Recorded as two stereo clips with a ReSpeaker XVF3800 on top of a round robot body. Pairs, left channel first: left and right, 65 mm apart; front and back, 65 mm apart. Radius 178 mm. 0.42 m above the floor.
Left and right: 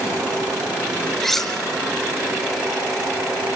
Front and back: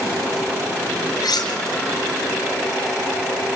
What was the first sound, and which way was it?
Cutlery clinking, straight ahead.